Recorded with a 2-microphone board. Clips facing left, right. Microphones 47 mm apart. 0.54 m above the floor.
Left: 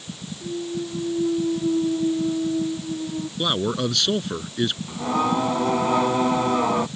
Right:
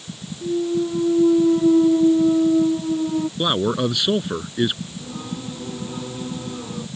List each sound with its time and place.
0.4 s a clunk: 40° right (ahead or behind)
3.4 s a man speaking: 10° right (ahead or behind)
4.9 s singing: 85° left